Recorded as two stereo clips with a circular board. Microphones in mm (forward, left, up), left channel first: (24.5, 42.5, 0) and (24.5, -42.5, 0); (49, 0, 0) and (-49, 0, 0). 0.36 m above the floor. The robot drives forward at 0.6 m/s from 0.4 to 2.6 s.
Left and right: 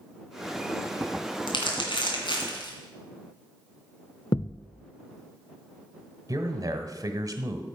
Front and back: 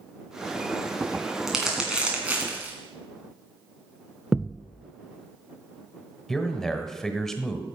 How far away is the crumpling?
About 2.5 m.